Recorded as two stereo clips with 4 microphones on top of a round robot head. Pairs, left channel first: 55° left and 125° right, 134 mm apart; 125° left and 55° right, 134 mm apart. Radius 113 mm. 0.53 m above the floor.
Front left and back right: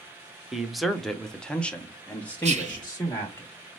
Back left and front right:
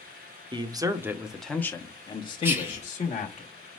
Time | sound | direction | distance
0.5 | a man speaking | 40° right | 0.9 m
2.4 | whispering | 125° right | 1.5 m